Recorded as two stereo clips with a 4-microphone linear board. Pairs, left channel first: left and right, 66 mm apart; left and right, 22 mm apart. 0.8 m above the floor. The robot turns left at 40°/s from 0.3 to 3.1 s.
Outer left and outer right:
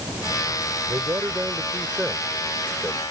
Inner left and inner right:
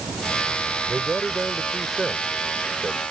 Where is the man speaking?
125° right; by 3.0 s 150° left.